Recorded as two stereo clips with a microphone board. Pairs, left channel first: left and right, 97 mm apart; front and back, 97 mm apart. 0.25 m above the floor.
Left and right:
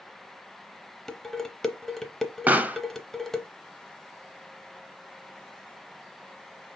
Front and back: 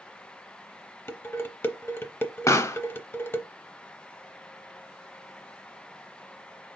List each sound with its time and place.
1.1 s dishes clattering: 10° left, 0.6 m
2.5 s a pop: 30° right, 0.5 m